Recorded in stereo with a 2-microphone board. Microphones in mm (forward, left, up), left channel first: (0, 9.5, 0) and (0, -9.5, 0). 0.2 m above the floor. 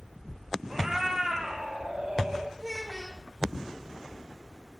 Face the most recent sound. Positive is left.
turn(degrees=15)  # may be behind; listen again after turning